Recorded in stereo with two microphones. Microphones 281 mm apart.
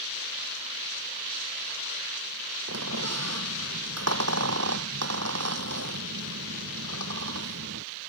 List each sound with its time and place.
2.7 s a squeak: 65° right (ahead or behind)